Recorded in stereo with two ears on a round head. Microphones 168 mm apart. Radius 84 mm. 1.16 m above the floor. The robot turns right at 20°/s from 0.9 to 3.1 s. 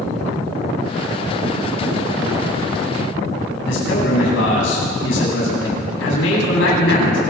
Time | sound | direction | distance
3.6 | a man speaking | 70° left (ahead or behind) | 9 m